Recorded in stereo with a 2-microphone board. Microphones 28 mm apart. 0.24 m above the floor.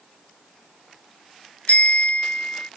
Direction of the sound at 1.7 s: 70° left (ahead or behind).